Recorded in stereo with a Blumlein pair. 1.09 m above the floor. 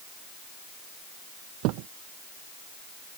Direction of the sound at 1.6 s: 40° right.